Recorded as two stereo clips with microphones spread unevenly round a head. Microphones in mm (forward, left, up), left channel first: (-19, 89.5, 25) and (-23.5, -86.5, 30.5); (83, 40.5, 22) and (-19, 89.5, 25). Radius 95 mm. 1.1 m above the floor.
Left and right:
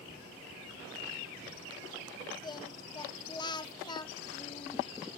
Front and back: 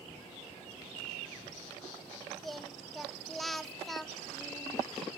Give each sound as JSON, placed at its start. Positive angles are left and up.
{"t": 2.4, "sound": "singing", "azimuth_deg": 60, "distance_m": 0.8}